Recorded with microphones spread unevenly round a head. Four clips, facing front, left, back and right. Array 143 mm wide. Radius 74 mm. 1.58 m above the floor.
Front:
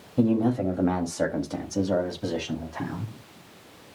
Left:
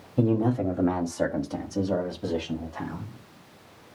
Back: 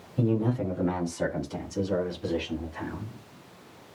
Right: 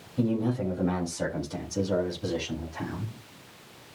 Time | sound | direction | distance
0.2 | a man speaking | 45° left | 3.5 m